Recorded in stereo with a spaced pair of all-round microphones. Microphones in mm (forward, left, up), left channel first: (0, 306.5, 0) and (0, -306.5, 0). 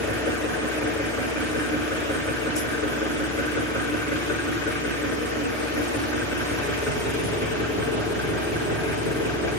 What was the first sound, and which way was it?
An engine running, 20° right (ahead or behind).